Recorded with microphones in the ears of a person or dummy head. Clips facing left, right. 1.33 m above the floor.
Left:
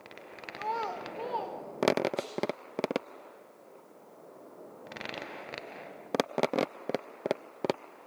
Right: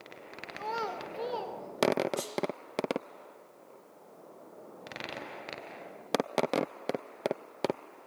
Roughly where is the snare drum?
Right.